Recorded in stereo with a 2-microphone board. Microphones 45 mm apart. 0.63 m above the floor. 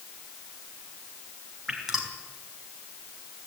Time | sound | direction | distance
1.7 | dripping | 10° right (ahead or behind) | 4 m